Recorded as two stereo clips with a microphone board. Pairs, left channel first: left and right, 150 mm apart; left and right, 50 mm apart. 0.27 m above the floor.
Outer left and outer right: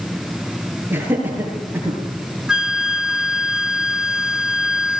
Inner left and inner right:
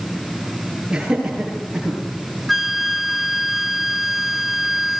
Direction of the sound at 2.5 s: 5° right (ahead or behind).